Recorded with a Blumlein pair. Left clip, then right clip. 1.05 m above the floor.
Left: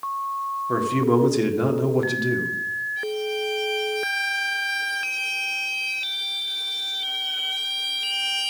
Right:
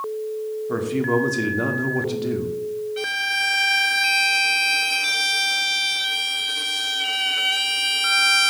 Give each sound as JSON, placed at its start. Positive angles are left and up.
{"t": 0.7, "sound": "a man speaking", "azimuth_deg": 5, "distance_m": 2.0}
{"t": 3.0, "sound": "a violin", "azimuth_deg": -60, "distance_m": 0.7}